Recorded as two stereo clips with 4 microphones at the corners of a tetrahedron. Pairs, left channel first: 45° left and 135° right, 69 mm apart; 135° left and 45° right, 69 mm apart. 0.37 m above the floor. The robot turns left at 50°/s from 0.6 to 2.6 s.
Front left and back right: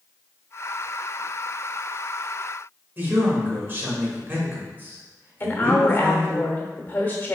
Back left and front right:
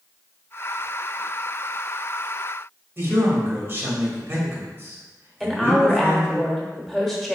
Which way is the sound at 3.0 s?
85° right.